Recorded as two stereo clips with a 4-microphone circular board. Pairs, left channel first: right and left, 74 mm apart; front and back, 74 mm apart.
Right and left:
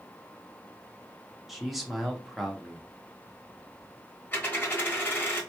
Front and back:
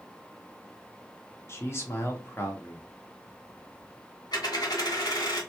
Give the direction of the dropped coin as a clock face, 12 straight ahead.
1 o'clock.